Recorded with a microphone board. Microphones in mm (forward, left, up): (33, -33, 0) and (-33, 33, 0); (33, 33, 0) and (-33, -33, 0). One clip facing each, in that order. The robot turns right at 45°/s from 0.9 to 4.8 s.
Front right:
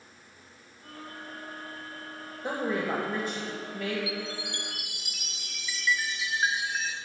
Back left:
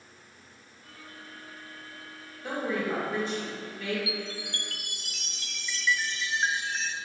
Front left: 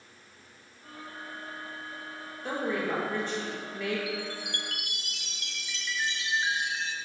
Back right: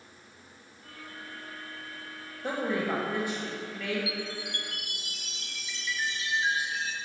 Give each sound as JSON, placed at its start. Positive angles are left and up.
{"t": 2.4, "sound": "a woman speaking", "azimuth_deg": -100, "distance_m": 1.9}
{"t": 4.1, "sound": "a chime", "azimuth_deg": 5, "distance_m": 0.6}